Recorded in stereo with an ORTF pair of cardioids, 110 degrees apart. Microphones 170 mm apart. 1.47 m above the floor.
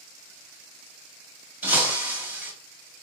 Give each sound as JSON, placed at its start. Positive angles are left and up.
{"t": 1.6, "sound": "breaking glass", "azimuth_deg": -10, "distance_m": 2.5}